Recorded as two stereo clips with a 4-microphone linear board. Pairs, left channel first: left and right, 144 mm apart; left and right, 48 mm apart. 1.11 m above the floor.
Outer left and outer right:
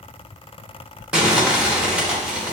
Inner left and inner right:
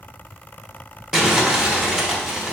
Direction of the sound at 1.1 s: 5° right (ahead or behind).